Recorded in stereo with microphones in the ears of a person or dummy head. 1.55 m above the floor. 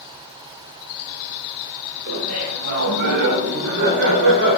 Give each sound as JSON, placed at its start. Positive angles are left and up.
{"t": 2.1, "sound": "laughter", "side_deg": -75, "distance_m": 4.5}